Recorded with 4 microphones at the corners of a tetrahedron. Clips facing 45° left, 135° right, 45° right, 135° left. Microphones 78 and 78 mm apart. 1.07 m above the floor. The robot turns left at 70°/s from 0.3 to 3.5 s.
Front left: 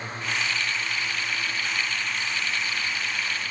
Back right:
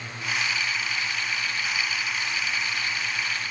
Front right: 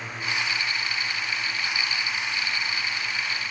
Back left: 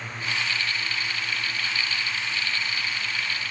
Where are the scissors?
No scissors in this recording.